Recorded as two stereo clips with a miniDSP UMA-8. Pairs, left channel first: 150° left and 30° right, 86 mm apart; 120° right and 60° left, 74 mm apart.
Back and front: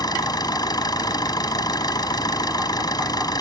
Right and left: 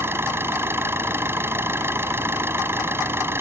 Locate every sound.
0.0 s an engine running: 115° left